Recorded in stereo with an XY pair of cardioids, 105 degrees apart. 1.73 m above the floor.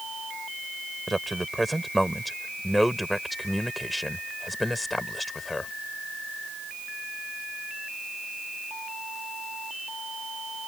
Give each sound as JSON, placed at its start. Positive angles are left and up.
{"t": 1.1, "sound": "a man speaking", "azimuth_deg": -10}